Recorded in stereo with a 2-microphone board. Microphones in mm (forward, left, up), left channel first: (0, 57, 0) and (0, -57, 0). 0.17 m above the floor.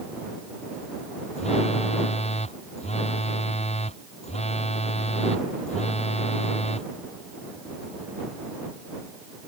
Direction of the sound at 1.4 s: 70° left (ahead or behind).